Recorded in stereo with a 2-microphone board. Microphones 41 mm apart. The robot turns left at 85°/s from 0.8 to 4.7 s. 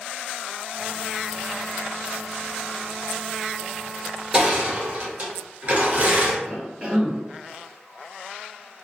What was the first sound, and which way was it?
Crushing, 20° right.